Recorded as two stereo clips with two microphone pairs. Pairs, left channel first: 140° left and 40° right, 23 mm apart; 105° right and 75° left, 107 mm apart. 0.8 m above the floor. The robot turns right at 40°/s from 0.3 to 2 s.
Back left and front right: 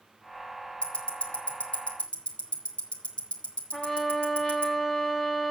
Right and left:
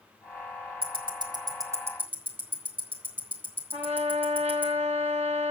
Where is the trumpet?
80° left, 2.5 m.